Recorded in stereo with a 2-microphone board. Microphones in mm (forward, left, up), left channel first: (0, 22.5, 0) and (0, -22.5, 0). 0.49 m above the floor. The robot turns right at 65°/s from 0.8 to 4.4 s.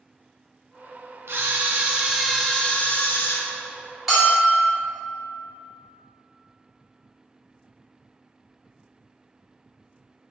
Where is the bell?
5° right (ahead or behind), 1.2 m; by 4.7 s 10° right (ahead or behind), 1.2 m.